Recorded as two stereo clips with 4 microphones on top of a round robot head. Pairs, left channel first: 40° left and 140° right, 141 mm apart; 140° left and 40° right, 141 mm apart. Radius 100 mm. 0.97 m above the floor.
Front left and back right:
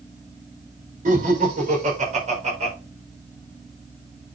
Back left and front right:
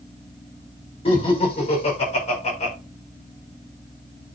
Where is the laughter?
170° right, 5 m; by 2.7 s straight behind, 5 m.